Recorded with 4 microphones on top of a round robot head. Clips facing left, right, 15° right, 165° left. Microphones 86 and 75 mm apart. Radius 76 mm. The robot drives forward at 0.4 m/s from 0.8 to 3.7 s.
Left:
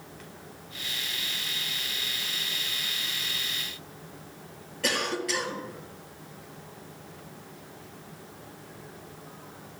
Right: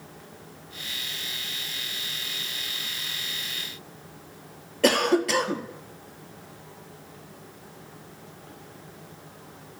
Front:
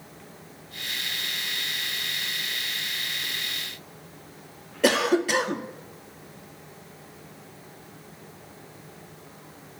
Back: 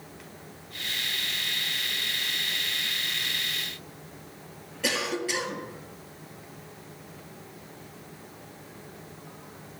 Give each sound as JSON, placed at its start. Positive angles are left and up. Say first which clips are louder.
{"t": 4.8, "sound": "a cough", "louder": "right 9 dB, front 8 dB", "azimuth_deg": -50, "distance_m": 1.9}